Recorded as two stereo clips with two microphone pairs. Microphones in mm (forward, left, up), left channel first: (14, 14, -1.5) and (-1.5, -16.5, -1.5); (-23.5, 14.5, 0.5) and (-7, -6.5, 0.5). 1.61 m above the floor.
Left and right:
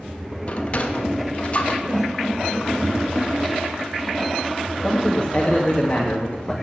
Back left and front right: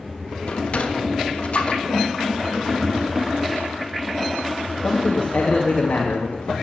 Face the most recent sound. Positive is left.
turn(degrees=130)